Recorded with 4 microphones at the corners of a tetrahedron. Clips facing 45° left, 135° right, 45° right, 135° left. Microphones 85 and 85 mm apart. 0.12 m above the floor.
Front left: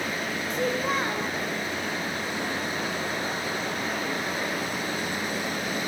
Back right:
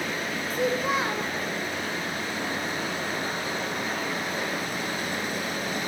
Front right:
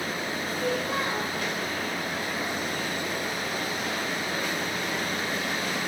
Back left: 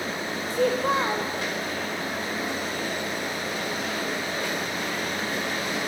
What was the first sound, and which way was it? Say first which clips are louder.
A child speaking: back right 1 dB, back left 7 dB; 140° left.